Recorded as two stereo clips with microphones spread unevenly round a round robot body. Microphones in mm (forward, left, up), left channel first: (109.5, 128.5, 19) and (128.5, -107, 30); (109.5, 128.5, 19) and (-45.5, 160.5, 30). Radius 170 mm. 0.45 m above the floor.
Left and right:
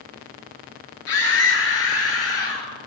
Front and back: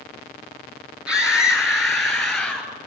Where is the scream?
85° left, 7.5 m; by 2.7 s 75° left, 8.5 m.